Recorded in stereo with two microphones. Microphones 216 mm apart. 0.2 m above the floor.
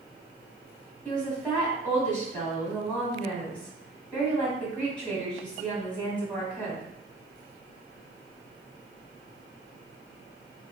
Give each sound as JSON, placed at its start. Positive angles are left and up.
{"t": 1.1, "sound": "a woman speaking", "side_deg": 5, "distance_m": 1.0}